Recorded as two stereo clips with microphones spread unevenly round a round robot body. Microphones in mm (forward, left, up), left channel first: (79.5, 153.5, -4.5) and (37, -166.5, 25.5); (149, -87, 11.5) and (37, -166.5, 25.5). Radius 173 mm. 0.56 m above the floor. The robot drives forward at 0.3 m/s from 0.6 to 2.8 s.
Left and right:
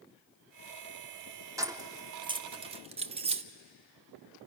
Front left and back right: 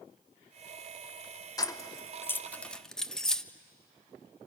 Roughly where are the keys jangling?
Ahead.